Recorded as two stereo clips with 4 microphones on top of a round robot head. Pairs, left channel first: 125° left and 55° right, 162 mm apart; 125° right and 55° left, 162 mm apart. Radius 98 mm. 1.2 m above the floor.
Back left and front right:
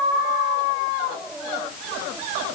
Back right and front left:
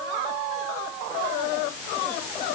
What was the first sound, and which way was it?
Only background noise.